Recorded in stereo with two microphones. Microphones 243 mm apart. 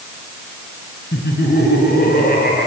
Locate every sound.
1.1 s laughter: 45° left (ahead or behind), 5.5 m; by 2.7 s 40° left (ahead or behind), 6.5 m